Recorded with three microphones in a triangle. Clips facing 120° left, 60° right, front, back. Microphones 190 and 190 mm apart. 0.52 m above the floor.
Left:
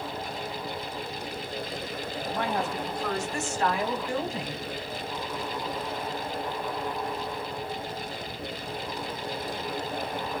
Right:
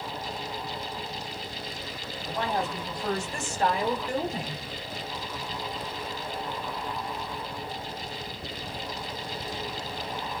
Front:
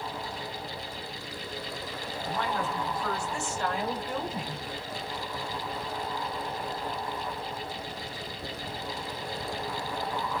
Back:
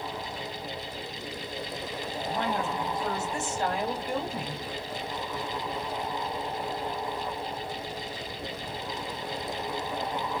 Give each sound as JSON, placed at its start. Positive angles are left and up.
{"t": 2.2, "sound": "a woman speaking", "azimuth_deg": -120, "distance_m": 3.0}